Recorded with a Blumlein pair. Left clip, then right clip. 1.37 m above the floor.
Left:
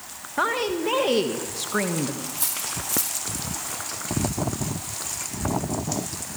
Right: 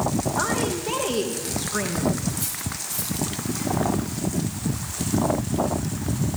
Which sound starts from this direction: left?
Cutlery clinking, at 2.3 s.